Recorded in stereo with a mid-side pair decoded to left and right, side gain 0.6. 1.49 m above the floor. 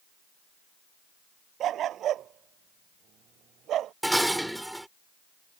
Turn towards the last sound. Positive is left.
turn(degrees=-5)